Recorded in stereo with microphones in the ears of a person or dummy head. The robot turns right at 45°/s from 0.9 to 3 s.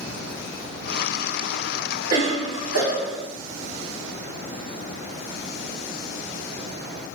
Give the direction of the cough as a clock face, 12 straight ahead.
4 o'clock.